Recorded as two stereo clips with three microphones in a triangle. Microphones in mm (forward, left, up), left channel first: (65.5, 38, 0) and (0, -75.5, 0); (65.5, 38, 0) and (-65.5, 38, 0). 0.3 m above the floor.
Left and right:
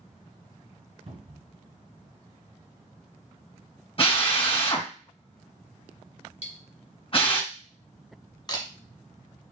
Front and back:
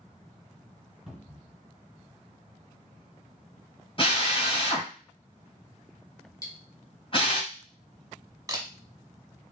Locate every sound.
1.1 s a cupboard door: 95° right, 2.5 m
4.0 s a drill: 35° left, 2 m
6.4 s cutlery clinking: 60° left, 1.1 m
8.5 s a camera shutter: 115° left, 1.0 m